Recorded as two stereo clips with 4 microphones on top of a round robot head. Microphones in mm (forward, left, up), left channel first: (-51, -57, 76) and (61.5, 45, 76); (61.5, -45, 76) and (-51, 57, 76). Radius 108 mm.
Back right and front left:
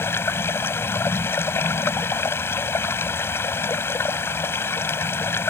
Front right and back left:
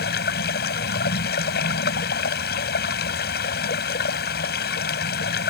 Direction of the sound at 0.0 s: 65° right.